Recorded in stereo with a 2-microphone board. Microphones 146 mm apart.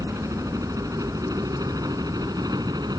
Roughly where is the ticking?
No ticking in this recording.